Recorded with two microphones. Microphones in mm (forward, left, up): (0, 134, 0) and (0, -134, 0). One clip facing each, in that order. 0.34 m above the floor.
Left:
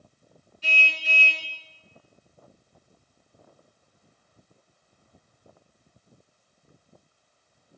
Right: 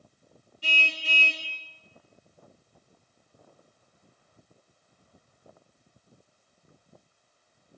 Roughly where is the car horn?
Right.